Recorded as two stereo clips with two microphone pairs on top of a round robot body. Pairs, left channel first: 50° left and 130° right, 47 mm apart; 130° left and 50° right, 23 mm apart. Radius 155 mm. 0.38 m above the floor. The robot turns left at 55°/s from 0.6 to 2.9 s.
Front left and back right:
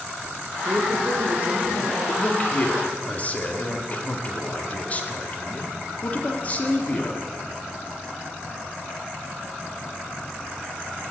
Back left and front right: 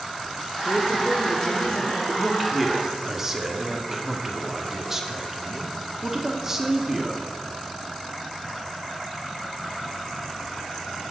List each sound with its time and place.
0.7 s a man speaking: 135° right, 2.5 m; by 2.0 s 150° left, 2.5 m
2.1 s a man speaking: 75° left, 1.7 m; by 7.2 s 30° left, 1.7 m